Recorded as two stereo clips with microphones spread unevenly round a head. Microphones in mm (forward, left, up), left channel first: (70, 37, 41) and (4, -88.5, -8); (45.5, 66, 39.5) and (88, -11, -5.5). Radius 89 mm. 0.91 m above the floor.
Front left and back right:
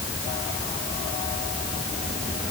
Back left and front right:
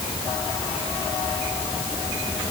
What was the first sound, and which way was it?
Only background noise.